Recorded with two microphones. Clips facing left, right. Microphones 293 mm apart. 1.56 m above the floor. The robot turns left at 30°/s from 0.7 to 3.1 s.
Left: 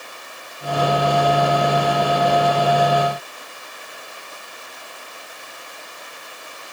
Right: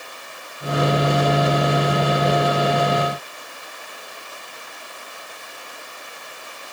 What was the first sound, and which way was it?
Only background noise.